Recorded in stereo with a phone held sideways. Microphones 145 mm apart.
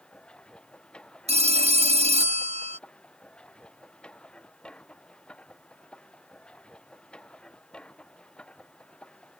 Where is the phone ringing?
45° right (ahead or behind).